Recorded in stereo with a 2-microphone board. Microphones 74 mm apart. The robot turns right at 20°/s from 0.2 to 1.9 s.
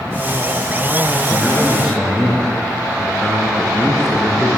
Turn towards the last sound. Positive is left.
turn(degrees=-5)  # may be behind; listen again after turning